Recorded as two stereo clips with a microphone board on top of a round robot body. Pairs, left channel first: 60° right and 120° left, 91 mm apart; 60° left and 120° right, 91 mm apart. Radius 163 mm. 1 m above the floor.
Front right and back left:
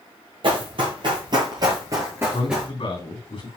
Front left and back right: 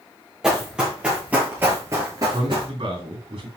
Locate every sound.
0.4 s running footsteps: 155° left, 1.8 m; by 2.7 s 150° right, 1.1 m
2.2 s a man speaking: 90° right, 3 m